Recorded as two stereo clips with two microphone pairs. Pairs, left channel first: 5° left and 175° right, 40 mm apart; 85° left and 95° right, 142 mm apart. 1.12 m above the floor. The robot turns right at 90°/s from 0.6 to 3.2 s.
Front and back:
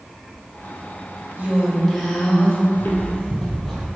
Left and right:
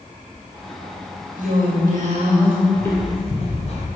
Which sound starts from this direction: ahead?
Footsteps, at 2.7 s.